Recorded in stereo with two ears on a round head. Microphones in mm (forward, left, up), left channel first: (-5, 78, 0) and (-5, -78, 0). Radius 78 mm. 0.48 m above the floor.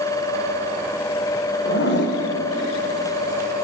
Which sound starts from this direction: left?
A zipper, at 1.6 s.